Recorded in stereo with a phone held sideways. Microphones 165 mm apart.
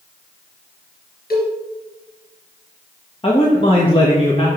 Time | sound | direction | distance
1.3 | a cowbell | 75° left (ahead or behind) | 3 m
3.2 | a man speaking | 35° left (ahead or behind) | 1.2 m